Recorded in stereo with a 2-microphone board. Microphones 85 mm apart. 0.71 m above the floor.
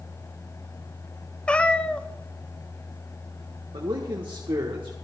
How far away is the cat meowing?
About 0.6 m.